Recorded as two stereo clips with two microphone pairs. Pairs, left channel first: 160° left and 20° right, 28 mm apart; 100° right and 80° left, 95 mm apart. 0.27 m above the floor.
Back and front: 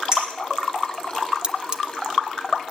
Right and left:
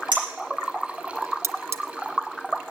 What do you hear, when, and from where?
0.1 s a clink: 45° left, 9 m
1.4 s cutlery clinking: 30° left, 0.8 m